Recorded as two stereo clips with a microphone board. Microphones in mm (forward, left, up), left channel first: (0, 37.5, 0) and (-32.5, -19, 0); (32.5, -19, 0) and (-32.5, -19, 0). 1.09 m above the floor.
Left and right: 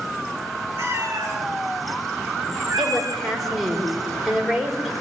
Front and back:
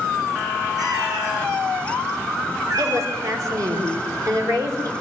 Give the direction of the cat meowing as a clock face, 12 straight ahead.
6 o'clock.